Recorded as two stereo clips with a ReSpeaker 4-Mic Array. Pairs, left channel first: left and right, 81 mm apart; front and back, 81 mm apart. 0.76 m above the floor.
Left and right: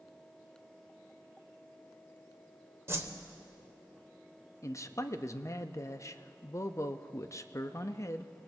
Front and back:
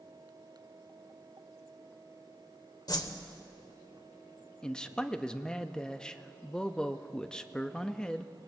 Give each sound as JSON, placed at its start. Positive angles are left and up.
{"t": 2.9, "sound": "a whoosh", "azimuth_deg": -35, "distance_m": 0.9}
{"t": 4.6, "sound": "a man speaking", "azimuth_deg": 75, "distance_m": 0.5}